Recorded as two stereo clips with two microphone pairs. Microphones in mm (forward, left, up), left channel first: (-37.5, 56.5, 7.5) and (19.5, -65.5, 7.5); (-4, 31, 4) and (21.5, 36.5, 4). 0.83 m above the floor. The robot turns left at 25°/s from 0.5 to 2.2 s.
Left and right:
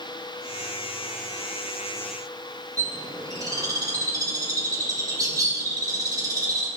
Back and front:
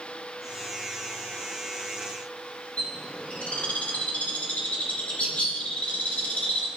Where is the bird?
130° right, 3.5 m.